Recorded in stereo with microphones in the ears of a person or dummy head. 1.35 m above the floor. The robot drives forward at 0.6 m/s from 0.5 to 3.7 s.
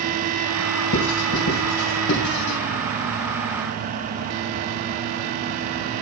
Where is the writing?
70° left (ahead or behind), 2.5 m; by 2.6 s 60° left (ahead or behind), 3 m.